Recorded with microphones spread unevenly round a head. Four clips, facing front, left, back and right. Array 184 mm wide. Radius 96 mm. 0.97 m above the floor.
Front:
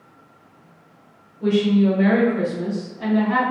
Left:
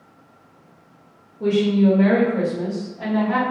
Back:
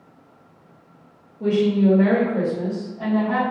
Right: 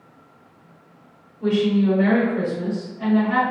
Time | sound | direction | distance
1.4 | a woman speaking | 120° left | 1.9 m